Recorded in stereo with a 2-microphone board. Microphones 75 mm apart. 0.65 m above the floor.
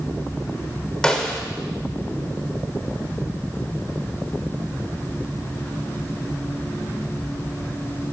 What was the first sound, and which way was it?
A snare drum, 10° left (ahead or behind).